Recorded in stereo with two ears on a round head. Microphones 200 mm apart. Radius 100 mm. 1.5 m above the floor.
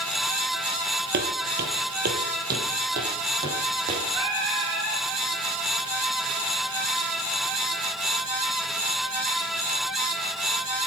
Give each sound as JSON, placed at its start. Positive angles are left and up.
{"t": 1.1, "sound": "footsteps", "side_deg": -45, "distance_m": 2.5}
{"t": 4.1, "sound": "singing", "side_deg": -20, "distance_m": 7.0}